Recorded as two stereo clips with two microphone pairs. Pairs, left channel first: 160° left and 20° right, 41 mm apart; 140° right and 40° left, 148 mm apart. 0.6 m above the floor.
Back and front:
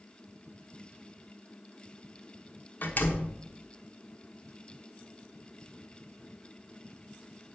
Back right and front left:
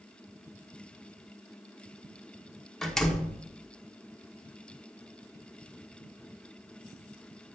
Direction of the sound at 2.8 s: 135° left.